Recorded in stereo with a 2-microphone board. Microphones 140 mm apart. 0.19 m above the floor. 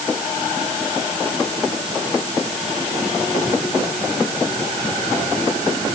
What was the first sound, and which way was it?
Only background noise.